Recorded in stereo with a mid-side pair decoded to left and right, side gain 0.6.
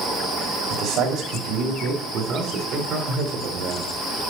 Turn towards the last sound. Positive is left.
turn(degrees=-60)